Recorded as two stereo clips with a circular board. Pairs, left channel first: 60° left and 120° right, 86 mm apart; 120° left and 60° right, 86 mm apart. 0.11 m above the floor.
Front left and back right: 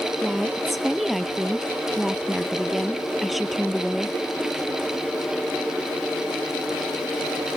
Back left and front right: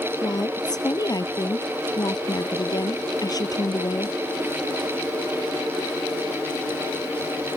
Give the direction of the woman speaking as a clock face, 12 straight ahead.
7 o'clock.